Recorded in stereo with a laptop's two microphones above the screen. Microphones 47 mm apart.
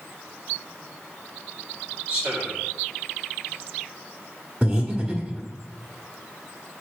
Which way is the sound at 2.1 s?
30° right (ahead or behind).